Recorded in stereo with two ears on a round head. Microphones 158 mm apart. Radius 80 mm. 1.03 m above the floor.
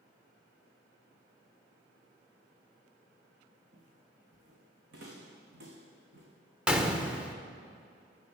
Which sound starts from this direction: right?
Footsteps, at 3.7 s.